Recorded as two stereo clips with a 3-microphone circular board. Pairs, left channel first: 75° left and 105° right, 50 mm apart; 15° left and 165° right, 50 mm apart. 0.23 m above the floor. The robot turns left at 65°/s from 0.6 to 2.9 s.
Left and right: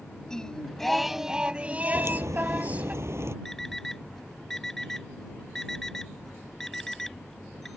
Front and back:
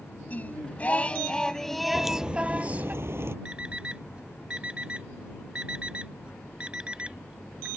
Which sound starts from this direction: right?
A crack, at 1.9 s.